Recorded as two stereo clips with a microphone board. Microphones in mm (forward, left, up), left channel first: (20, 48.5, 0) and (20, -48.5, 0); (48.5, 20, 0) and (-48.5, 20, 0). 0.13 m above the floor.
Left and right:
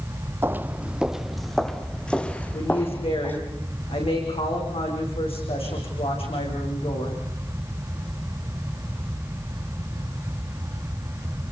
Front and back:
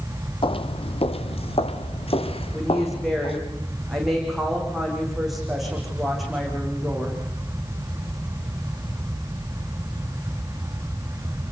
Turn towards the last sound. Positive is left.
turn(degrees=90)